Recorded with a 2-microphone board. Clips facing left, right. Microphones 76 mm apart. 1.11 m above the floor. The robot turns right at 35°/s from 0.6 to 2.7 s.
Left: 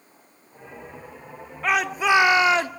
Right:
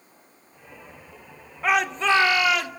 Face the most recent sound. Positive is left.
turn(degrees=35)